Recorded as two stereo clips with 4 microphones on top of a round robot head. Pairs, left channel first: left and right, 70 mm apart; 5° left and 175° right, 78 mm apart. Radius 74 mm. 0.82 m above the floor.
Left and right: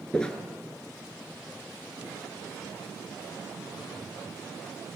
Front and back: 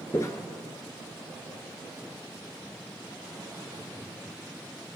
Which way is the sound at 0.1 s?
20° left.